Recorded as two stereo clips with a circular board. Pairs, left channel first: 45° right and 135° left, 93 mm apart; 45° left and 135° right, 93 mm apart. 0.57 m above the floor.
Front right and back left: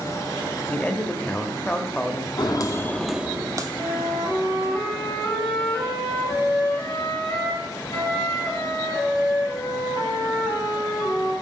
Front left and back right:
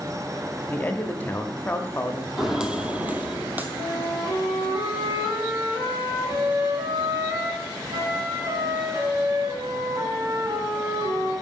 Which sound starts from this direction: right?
A flute, at 3.8 s.